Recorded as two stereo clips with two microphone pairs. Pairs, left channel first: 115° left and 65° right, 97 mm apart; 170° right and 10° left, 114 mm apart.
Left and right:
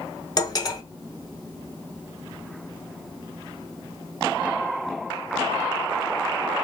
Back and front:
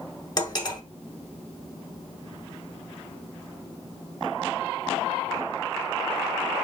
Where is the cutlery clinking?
150° left, 1.0 m.